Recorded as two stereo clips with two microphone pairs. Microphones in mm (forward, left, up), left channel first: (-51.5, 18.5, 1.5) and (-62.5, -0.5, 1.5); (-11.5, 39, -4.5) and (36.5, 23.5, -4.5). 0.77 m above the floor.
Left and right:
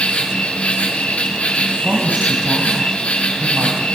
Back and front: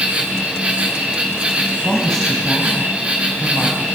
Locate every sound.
0.0 s an insect: 50° left, 5.5 m
1.8 s a woman speaking: 120° right, 4.5 m